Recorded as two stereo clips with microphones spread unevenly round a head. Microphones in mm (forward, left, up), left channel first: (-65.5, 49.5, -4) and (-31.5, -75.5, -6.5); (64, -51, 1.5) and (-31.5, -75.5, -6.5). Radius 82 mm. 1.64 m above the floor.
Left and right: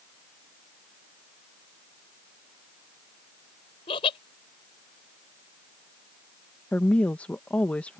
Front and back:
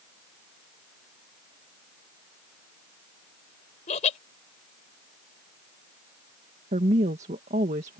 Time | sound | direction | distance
3.9 | laughter | 45° left | ?
6.7 | a woman speaking | 175° right | ?